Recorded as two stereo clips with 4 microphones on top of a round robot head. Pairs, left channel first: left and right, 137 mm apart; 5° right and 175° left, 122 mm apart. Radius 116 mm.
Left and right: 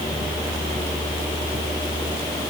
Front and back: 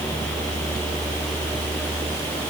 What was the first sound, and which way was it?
Only background noise.